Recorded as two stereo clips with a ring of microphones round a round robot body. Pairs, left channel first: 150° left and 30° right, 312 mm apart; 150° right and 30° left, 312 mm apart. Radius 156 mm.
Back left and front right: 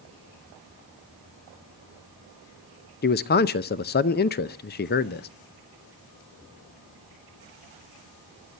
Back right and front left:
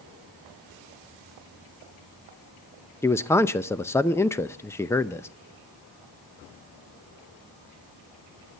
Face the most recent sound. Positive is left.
turn(degrees=135)